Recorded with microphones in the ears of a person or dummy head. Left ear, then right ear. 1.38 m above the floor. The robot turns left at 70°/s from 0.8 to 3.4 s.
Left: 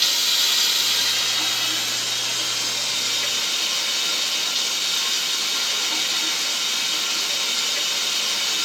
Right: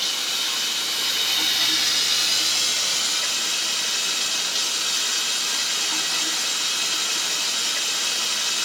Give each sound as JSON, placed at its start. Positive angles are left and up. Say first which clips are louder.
{"t": 0.0, "sound": "running water", "louder": "left 5 dB", "azimuth_deg": 30, "distance_m": 3.0}